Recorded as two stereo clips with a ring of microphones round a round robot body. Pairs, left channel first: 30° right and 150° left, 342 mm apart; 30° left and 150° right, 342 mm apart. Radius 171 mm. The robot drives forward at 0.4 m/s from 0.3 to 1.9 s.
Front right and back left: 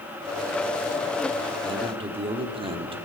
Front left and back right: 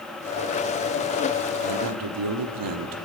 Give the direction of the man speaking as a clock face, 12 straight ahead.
4 o'clock.